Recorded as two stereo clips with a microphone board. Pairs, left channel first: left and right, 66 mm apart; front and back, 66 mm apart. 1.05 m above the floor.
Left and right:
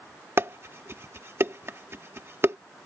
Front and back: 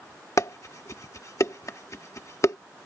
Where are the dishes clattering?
40° right.